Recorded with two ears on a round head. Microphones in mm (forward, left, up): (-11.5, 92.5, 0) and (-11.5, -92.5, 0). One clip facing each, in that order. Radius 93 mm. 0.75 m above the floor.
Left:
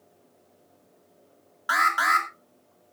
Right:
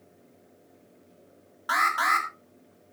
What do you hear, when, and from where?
1.7 s an alarm: 5° left (ahead or behind), 2.5 m